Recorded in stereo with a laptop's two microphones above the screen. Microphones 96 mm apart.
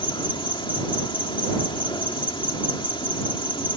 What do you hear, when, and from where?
0.0 s an insect: 60° left (ahead or behind)